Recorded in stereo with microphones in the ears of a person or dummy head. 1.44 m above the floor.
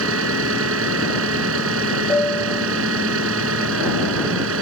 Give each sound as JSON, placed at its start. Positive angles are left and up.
{"t": 0.0, "sound": "an engine running", "side_deg": -90}
{"t": 2.1, "sound": "a piano", "side_deg": 0}